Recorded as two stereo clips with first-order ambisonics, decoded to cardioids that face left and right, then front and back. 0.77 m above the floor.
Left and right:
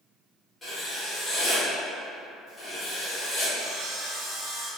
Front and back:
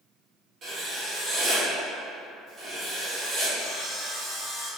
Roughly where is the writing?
Behind.